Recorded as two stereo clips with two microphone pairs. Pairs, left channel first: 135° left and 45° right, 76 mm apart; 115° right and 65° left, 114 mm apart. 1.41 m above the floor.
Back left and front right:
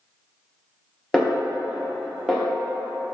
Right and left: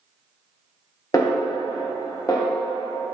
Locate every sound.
1.1 s a snare drum: 145° right, 0.9 m